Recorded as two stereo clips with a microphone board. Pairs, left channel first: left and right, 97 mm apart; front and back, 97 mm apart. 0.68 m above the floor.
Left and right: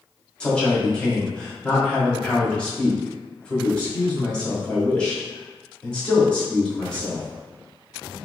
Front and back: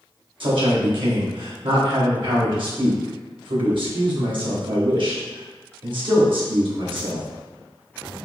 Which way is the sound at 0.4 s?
170° left.